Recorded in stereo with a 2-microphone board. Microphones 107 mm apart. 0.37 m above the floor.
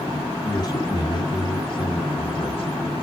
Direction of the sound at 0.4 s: 40° left (ahead or behind).